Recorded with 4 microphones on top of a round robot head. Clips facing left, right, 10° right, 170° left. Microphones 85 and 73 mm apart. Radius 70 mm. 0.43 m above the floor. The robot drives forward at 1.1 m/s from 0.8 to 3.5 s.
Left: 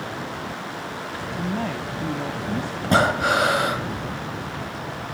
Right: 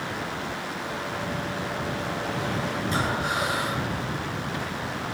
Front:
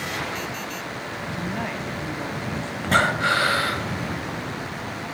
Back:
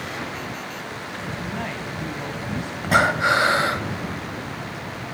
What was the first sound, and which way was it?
A woman speaking, 65° left.